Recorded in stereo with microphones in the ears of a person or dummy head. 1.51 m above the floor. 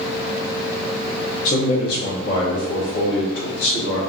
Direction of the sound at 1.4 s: 45° left (ahead or behind).